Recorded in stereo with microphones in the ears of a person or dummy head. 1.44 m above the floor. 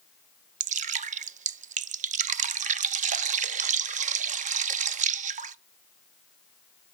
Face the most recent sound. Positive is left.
turn(degrees=-35)  # may be behind; listen again after turning